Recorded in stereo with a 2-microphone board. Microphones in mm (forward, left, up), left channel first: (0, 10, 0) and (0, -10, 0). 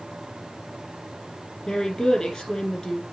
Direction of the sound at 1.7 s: 40° left (ahead or behind).